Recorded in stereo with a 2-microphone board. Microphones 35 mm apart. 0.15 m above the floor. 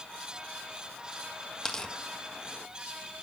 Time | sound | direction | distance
1.6 | tearing paper | 10° left (ahead or behind) | 1.4 m